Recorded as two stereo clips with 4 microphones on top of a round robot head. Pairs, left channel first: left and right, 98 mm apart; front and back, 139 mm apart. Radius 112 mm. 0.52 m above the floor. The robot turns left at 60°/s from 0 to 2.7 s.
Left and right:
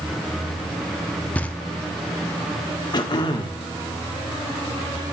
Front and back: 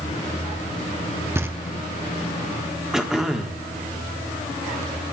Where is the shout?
I don't hear a shout.